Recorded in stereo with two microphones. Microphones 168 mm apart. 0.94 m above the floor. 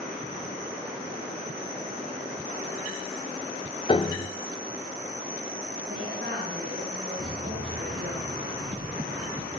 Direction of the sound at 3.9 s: 30° left (ahead or behind).